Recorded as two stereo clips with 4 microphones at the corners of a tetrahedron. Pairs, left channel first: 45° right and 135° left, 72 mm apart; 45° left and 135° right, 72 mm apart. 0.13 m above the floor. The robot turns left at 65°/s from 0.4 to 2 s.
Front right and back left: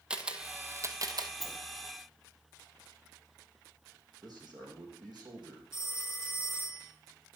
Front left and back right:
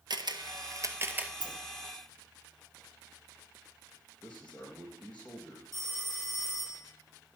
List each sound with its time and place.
0.1 s a camera shutter: 150° right, 1.0 m; by 1.3 s 150° left, 1.0 m
1.4 s a sliding door: 135° right, 1.5 m; by 1.6 s 145° right, 1.5 m
4.2 s a man speaking: 115° left, 5 m
5.7 s a phone ringing: 130° left, 3.5 m